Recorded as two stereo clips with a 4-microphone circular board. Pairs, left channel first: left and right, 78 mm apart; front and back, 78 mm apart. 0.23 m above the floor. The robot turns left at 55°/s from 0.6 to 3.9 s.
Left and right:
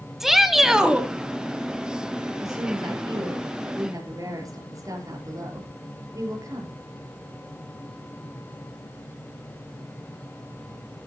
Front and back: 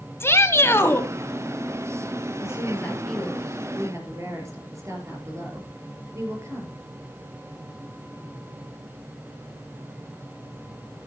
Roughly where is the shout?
Ahead.